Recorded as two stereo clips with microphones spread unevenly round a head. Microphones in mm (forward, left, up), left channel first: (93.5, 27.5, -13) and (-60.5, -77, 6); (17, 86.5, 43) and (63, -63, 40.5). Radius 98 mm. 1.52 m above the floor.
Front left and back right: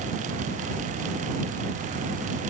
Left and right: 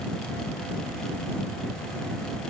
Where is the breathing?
I don't hear breathing.